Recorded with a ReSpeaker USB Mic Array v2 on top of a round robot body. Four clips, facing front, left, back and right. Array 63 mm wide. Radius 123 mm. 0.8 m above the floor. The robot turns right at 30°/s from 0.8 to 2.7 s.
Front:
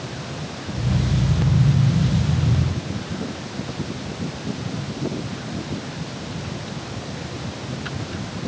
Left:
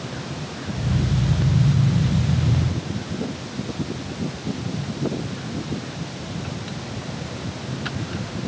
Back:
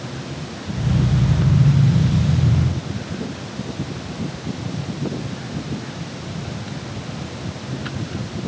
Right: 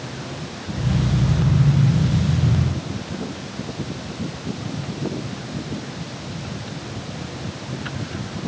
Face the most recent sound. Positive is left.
No sound to turn to.